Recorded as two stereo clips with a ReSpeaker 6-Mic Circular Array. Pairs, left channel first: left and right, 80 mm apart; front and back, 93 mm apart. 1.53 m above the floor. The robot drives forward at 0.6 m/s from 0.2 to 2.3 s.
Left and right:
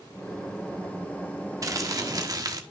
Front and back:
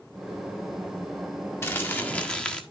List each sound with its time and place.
1.6 s crumpling: 55° right, 1.5 m; by 2.6 s 75° right, 1.4 m